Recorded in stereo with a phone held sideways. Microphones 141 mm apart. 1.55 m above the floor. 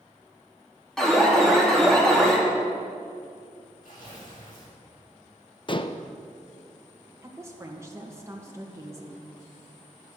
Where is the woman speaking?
20° right (ahead or behind), 2 m.